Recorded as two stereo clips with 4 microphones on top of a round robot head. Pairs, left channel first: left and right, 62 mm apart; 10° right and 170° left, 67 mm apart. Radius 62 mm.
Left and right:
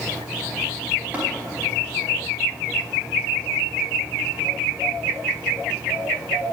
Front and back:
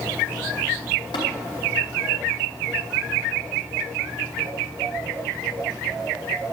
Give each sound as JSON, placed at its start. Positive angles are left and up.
{"t": 1.1, "sound": "tapping", "azimuth_deg": -20, "distance_m": 4.5}